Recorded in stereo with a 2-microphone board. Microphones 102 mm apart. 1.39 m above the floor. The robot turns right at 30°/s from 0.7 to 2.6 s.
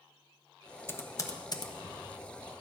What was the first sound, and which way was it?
Typing on a keyboard, 25° left (ahead or behind).